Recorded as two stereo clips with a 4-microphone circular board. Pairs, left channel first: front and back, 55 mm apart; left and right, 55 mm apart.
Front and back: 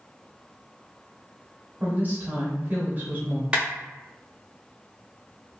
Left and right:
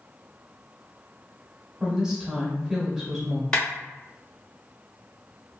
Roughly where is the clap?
Behind left.